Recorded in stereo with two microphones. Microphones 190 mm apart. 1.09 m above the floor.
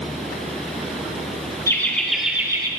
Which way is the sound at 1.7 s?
15° left (ahead or behind).